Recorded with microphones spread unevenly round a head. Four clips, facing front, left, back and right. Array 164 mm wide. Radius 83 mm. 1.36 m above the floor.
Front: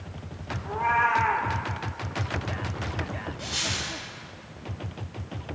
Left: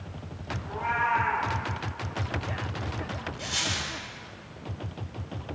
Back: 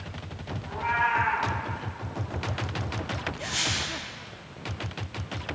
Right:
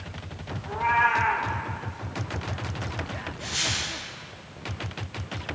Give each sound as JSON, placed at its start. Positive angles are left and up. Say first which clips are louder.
{"t": 0.7, "sound": "a cat meowing", "louder": "right 5 dB, front 3 dB", "azimuth_deg": -25, "distance_m": 1.5}
{"t": 3.4, "sound": "a dropped coin", "louder": "right 1 dB, back 1 dB", "azimuth_deg": 60, "distance_m": 3.5}